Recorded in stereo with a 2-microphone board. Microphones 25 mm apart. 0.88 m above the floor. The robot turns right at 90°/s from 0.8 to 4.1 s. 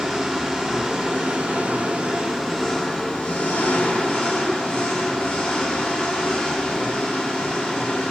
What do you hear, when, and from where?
0.0 s an engine running: 145° right, 8.5 m; by 8.1 s 150° left, 8.5 m